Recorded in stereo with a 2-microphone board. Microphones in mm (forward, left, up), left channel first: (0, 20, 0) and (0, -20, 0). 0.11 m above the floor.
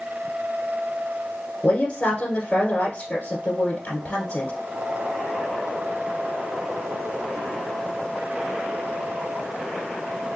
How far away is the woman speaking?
About 1.4 m.